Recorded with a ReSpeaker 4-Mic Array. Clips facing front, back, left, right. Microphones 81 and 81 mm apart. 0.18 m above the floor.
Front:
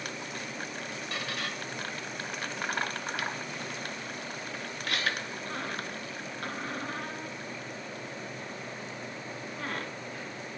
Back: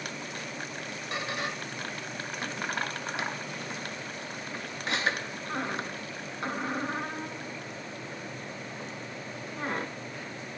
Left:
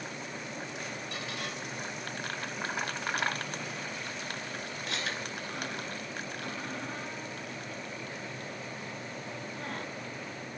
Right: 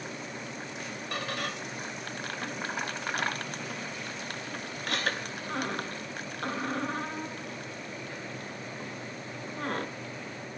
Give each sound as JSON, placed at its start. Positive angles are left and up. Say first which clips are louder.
{"t": 1.1, "sound": "a squeak", "louder": "back 4 dB, right 4 dB", "azimuth_deg": -115, "distance_m": 0.5}